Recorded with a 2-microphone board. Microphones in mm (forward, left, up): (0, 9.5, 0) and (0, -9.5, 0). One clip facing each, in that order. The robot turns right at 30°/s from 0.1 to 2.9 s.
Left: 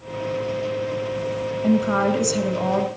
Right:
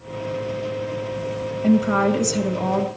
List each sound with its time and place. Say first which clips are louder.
1.6 s a woman speaking: right 2 dB; 5° right, 1.3 m; by 2.9 s 35° left, 1.3 m